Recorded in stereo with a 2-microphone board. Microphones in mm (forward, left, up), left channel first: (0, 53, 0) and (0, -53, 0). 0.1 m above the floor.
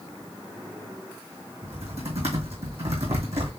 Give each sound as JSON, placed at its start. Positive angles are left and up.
{"t": 1.6, "sound": "typing on a keyboard", "side_deg": -75, "distance_m": 2.0}